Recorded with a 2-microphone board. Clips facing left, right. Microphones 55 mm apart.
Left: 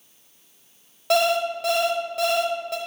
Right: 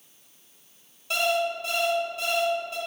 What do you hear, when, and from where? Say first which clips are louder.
1.1 s an alarm clock: left 5 dB; 80° left, 0.9 m